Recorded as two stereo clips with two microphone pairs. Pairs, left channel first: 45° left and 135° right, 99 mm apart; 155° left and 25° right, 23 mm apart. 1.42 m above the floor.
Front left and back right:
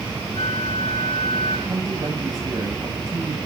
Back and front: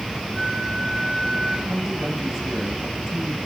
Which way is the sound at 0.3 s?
130° left.